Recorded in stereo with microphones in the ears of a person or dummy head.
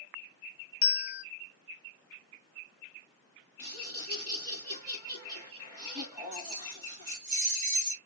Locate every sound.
0.8 s a bell: 55° left (ahead or behind), 0.5 m
3.6 s laughter: 15° right (ahead or behind), 1.6 m
6.3 s keys jangling: 40° right (ahead or behind), 1.4 m